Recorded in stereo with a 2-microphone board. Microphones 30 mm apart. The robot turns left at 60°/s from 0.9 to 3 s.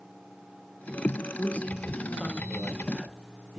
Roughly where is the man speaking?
Left.